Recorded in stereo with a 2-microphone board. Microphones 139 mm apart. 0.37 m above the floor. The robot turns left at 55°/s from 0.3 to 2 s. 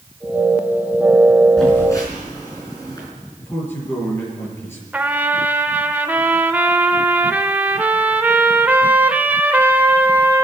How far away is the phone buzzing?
About 4.5 m.